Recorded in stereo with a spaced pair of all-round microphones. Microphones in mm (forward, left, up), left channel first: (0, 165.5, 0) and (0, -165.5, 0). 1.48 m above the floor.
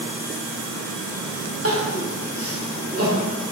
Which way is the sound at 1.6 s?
45° right (ahead or behind).